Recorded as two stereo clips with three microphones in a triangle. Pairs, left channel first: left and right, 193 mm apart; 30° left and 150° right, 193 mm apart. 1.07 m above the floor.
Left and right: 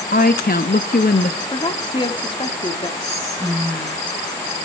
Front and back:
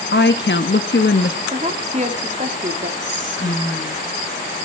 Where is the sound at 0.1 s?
50° left, 1.6 m.